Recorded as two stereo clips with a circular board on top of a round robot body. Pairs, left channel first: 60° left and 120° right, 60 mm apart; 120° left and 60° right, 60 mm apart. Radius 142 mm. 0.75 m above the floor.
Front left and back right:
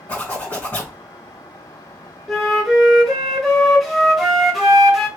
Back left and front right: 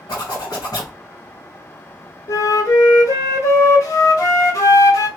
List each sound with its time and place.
0.1 s a zipper: 120° left, 2 m
2.3 s a flute: 150° left, 1.3 m